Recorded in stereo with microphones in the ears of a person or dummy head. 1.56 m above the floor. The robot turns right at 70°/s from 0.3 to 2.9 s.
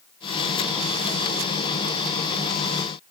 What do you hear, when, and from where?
Only background noise.